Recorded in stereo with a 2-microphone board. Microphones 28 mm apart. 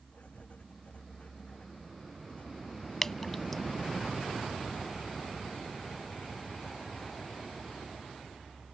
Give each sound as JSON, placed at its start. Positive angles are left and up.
{"t": 0.1, "sound": "writing", "side_deg": 45}
{"t": 3.0, "sound": "dripping", "side_deg": 15}